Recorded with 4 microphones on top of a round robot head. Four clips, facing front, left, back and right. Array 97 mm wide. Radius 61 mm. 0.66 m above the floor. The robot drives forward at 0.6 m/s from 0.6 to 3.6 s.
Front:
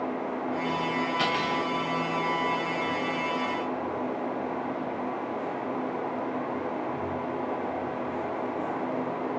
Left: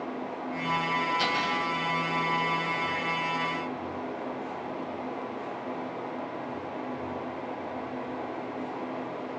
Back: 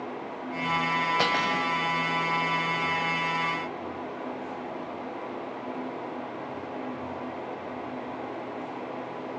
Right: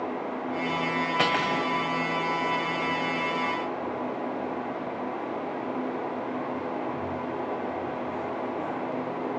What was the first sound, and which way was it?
Cutlery clinking, 125° right.